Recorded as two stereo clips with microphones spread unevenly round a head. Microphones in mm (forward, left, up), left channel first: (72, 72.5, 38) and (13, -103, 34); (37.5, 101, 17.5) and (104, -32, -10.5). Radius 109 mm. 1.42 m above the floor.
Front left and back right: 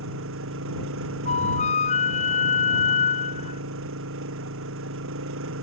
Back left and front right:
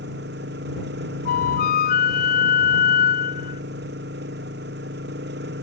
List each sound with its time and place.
0.0 s an engine running: 105° right
1.2 s a flute: 130° left